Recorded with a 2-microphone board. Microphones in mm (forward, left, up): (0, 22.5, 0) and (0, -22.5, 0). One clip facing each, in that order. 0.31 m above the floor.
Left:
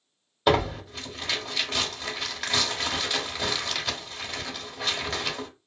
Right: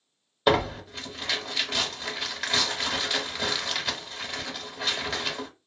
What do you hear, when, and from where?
0.5 s tearing paper: centre (ahead or behind), 0.7 m